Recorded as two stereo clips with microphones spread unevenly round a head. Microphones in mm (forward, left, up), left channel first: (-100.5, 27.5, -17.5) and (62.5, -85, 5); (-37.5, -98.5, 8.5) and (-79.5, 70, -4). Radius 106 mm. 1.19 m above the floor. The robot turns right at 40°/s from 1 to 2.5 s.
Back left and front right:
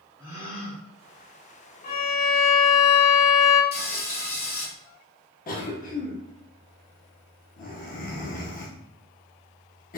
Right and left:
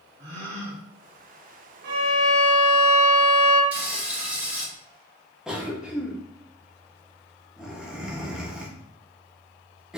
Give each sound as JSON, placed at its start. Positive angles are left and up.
{"t": 0.2, "sound": "a gasp", "azimuth_deg": 50, "distance_m": 1.1}
{"t": 1.8, "sound": "a violin", "azimuth_deg": 95, "distance_m": 0.8}
{"t": 3.7, "sound": "frying", "azimuth_deg": -175, "distance_m": 1.6}
{"t": 5.5, "sound": "a cough", "azimuth_deg": -170, "distance_m": 0.8}